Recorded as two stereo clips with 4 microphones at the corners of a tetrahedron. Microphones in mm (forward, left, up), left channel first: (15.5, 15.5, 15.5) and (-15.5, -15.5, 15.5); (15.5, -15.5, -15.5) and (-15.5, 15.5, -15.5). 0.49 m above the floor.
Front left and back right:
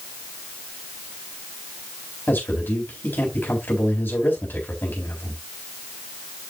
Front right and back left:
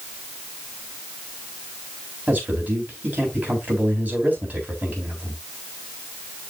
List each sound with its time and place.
2.3 s a man speaking: 85° left, 4 m